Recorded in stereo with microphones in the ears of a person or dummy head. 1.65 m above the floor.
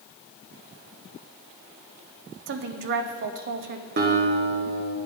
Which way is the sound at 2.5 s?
55° right (ahead or behind).